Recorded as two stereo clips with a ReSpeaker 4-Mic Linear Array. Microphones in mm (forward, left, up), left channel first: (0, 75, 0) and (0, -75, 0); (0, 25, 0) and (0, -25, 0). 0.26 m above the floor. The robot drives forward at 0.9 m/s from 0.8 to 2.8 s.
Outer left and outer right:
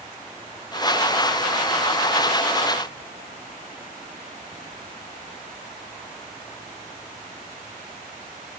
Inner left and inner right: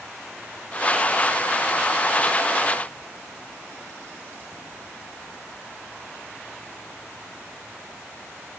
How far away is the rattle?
I don't hear a rattle.